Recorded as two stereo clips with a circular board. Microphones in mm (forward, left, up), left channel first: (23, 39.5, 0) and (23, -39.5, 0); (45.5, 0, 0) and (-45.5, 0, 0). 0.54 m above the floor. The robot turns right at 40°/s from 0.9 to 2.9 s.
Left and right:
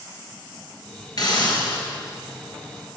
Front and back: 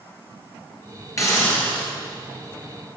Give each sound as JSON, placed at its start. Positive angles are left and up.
{"t": 1.2, "sound": "a hiss", "azimuth_deg": 55, "distance_m": 3.0}